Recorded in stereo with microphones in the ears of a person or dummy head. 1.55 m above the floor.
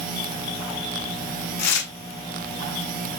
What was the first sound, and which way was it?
Tearing paper, 85° left.